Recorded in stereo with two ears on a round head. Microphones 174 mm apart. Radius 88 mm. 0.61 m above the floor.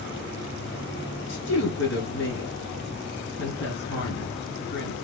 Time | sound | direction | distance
1.3 | a woman speaking | 65° left (ahead or behind) | 5.5 m